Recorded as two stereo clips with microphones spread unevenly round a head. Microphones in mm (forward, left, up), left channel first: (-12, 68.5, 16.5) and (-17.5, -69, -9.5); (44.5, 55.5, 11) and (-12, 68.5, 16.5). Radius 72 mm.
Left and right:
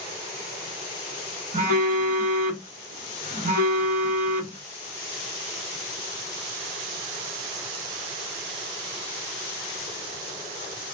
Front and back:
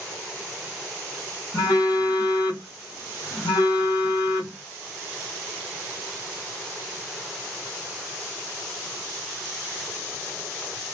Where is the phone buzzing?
55° right, 1.9 m.